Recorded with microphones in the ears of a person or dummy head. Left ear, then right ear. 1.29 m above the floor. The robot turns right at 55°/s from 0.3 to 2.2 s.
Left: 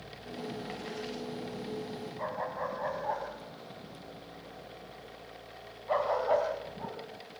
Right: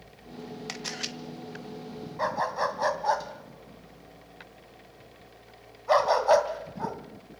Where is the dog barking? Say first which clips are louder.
Right 8 dB; 70° right (ahead or behind), 2.5 m.